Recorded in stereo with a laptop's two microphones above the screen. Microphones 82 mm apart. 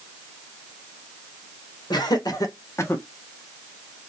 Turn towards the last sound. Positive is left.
turn(degrees=20)  # may be behind; listen again after turning